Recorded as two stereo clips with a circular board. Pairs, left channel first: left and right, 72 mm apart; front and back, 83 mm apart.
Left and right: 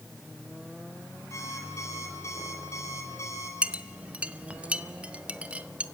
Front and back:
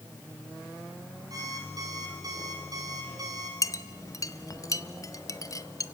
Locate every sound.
1.3 s an alarm clock: 140° left, 6 m
3.6 s a clink: 20° right, 0.7 m